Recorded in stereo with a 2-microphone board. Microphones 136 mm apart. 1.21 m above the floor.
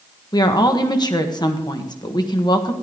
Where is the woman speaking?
30° left (ahead or behind), 1.4 m.